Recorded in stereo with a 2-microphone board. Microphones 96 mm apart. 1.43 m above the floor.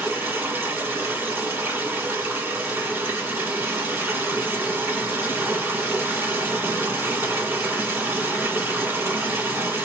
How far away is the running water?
About 1.6 m.